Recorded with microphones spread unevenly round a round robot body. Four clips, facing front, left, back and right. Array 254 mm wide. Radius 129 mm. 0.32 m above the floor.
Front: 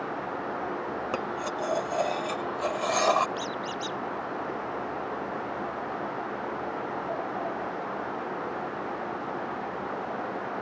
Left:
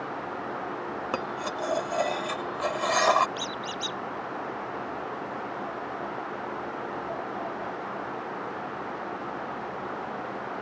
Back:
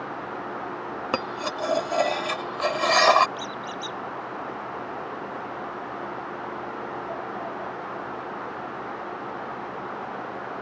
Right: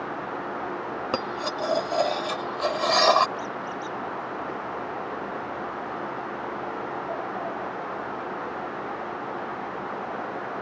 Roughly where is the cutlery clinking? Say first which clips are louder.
Right 3 dB, back 5 dB; behind right.